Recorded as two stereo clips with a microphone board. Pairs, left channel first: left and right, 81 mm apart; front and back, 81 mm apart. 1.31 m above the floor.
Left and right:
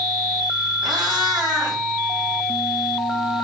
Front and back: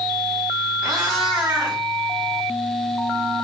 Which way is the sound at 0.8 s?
100° right.